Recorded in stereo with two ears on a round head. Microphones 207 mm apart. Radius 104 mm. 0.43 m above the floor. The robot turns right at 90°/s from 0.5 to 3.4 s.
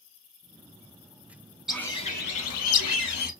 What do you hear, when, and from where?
1.7 s a bird: 5° right, 0.6 m; by 3.3 s 145° left, 0.6 m